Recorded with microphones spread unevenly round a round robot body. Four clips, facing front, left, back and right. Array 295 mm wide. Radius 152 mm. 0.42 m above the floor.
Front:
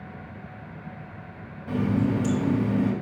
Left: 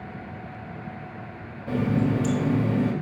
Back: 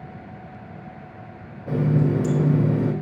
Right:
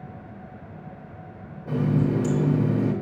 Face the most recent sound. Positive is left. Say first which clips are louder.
# even, back 2 dB
turn(degrees=175)